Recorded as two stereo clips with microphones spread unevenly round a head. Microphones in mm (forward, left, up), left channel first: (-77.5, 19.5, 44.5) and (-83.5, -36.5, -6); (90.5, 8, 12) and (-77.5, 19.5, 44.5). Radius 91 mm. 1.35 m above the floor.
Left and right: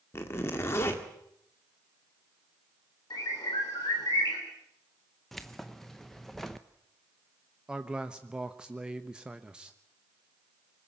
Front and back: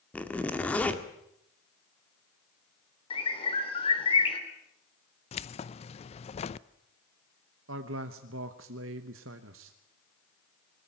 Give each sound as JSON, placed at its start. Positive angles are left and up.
{"t": 0.1, "sound": "a zipper", "azimuth_deg": 80, "distance_m": 1.7}
{"t": 3.1, "sound": "a bird", "azimuth_deg": 55, "distance_m": 3.5}
{"t": 5.3, "sound": "keys jangling", "azimuth_deg": 50, "distance_m": 0.6}
{"t": 7.7, "sound": "a man speaking", "azimuth_deg": 180, "distance_m": 1.1}